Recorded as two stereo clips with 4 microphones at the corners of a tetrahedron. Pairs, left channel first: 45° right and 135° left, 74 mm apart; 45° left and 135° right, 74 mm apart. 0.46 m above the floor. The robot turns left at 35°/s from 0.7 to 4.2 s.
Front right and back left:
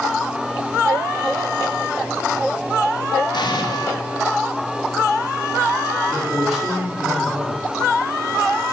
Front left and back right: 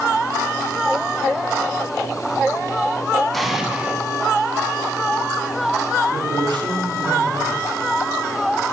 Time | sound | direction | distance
3.3 | an explosion | 45° right | 1.0 m
6.1 | a man speaking | 135° right | 3 m